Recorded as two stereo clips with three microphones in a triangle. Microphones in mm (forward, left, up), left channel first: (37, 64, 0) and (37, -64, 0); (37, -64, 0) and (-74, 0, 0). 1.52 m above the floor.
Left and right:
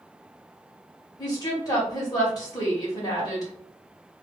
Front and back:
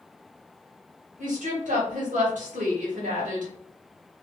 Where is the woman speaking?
150° left, 2.0 m.